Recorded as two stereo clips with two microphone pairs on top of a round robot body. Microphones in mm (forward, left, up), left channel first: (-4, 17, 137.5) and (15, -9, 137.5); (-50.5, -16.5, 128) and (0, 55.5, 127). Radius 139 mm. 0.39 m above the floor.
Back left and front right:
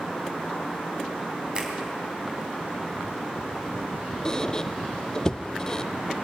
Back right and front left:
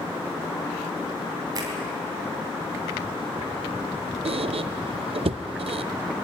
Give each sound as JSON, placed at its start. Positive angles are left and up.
{"t": 1.6, "sound": "a finger snap", "azimuth_deg": 5, "distance_m": 3.0}
{"t": 4.2, "sound": "a squeak", "azimuth_deg": 55, "distance_m": 0.6}